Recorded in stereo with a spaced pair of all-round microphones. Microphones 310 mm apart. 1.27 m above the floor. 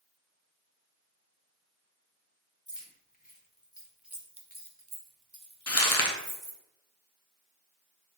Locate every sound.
2.7 s keys jangling: 35° left (ahead or behind), 1.2 m; by 6.6 s 85° right, 1.4 m
5.7 s crumpling: 50° left (ahead or behind), 0.6 m